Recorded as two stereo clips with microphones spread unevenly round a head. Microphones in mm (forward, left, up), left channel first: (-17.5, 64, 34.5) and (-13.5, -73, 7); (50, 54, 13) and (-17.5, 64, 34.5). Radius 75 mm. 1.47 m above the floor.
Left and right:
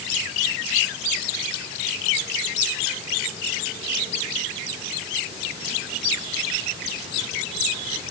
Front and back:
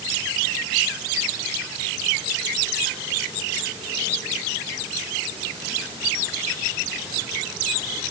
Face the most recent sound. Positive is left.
No sound to turn to.